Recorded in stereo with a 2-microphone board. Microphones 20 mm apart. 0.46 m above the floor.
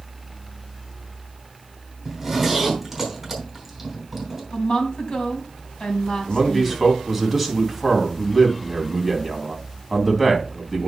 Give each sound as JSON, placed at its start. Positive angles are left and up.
{"t": 2.0, "sound": "a zipper", "side_deg": -5, "distance_m": 4.0}
{"t": 4.5, "sound": "a woman speaking", "side_deg": 45, "distance_m": 3.0}
{"t": 6.3, "sound": "a man speaking", "side_deg": 0, "distance_m": 3.0}